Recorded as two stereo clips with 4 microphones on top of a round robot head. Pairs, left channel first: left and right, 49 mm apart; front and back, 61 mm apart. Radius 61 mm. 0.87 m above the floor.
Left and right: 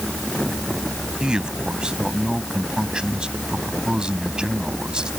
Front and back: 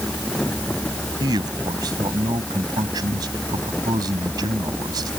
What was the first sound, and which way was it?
A man speaking, 165° right.